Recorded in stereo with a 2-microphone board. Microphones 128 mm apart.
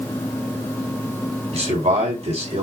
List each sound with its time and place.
1.5 s a man speaking: 60° right (ahead or behind), 2.5 m